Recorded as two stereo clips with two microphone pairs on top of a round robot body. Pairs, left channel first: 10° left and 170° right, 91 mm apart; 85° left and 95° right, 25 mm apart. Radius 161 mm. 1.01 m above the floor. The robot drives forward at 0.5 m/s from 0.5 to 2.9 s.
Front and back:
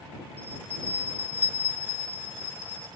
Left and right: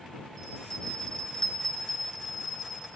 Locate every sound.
0.4 s a bell: 15° left, 4 m; by 2.9 s 20° left, 3 m